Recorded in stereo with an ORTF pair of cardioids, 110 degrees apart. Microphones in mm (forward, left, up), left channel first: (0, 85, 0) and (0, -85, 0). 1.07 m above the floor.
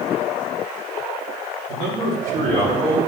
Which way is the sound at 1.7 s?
60° right.